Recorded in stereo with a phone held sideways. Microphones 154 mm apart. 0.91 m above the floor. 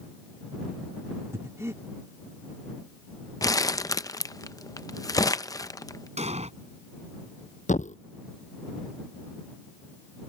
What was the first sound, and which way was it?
Breathing, 20° right (ahead or behind).